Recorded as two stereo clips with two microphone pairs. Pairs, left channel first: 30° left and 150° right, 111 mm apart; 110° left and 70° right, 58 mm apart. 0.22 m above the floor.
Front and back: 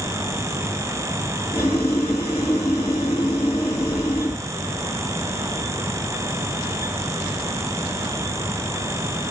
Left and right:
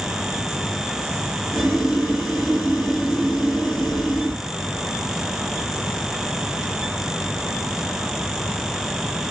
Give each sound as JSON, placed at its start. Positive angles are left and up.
{"t": 1.5, "sound": "boiling", "azimuth_deg": 15, "distance_m": 1.7}